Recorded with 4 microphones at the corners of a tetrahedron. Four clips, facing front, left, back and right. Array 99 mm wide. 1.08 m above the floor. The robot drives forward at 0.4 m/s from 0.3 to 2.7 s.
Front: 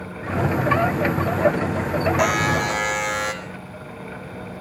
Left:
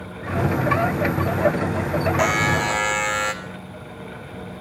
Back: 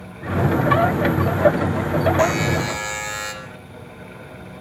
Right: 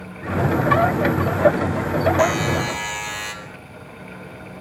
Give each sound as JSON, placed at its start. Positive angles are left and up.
{"t": 2.2, "sound": "a buzzer", "azimuth_deg": 55, "distance_m": 3.0}